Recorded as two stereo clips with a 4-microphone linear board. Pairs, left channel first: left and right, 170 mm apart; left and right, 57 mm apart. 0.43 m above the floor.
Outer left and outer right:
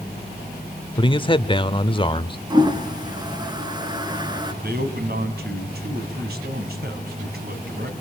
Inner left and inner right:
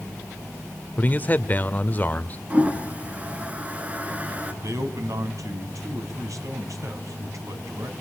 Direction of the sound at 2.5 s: 25° right (ahead or behind).